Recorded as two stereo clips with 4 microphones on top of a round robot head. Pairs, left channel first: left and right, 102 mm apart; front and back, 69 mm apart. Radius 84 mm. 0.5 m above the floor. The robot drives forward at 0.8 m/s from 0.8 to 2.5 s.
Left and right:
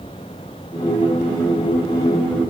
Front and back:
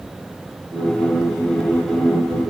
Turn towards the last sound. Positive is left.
No sound to turn to.